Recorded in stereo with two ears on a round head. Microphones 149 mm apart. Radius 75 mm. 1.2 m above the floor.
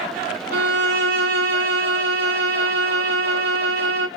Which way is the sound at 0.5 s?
70° right (ahead or behind).